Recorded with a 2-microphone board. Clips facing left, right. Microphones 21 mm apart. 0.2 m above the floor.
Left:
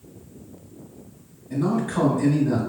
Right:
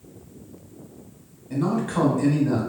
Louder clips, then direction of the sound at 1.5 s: Even; 20° right (ahead or behind).